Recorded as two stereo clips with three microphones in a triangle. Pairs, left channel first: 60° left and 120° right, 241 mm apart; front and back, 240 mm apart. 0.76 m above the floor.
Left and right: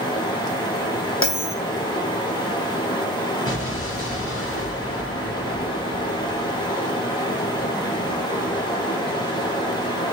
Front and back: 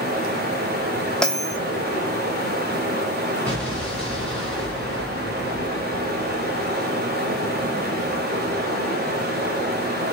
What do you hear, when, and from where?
0.0 s running water: 130° left, 1.6 m
1.2 s a bell: 85° left, 0.9 m
3.5 s an explosion: 85° left, 3 m